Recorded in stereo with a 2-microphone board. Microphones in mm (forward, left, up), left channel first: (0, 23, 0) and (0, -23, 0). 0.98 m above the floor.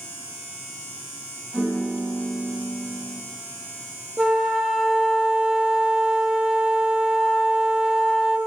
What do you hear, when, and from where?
1.5 s a piano: 15° left (ahead or behind), 4 m
4.2 s a flute: 5° right (ahead or behind), 0.9 m